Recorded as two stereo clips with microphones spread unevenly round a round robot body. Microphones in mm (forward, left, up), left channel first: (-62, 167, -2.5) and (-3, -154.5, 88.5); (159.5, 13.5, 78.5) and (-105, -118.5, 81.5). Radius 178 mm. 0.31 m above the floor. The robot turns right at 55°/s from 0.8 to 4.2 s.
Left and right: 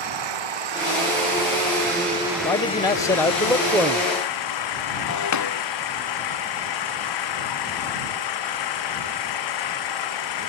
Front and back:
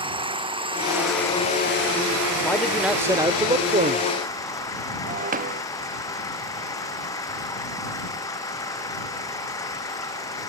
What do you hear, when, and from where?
0.0 s an engine running: 80° right; by 10.5 s 105° left
2.4 s a man speaking: 100° left; by 4.1 s 170° right
5.1 s breaking glass: 140° left